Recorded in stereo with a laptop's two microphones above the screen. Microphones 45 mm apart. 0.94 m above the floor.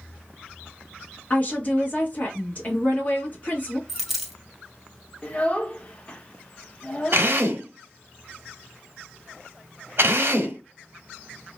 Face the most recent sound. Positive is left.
turn(degrees=-60)  # may be behind; listen again after turning